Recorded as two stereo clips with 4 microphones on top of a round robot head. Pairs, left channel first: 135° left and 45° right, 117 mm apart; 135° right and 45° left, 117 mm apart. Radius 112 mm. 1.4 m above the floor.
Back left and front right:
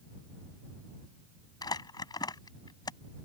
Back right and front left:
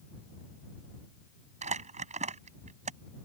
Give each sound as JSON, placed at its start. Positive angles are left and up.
{"t": 1.6, "sound": "crumpling", "azimuth_deg": 75}